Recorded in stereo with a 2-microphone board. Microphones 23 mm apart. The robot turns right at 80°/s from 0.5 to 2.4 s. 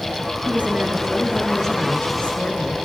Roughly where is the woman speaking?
Right.